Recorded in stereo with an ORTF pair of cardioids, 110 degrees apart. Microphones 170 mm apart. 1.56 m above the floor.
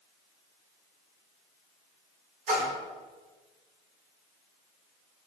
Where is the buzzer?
No buzzer in this recording.